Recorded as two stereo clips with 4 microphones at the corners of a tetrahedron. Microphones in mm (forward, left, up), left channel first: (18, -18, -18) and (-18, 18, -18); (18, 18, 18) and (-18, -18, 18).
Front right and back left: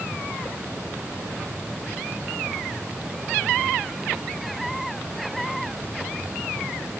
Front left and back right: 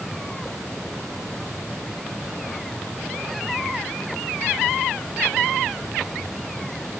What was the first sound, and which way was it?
Only background noise.